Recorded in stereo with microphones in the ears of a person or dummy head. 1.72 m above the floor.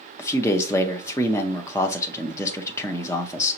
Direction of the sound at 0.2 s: 20° left (ahead or behind).